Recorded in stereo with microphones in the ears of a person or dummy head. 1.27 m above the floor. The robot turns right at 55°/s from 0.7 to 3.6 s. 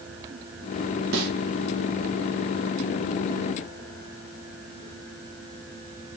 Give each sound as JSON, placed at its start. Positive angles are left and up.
{"t": 1.1, "sound": "a snare drum", "side_deg": -80, "distance_m": 1.2}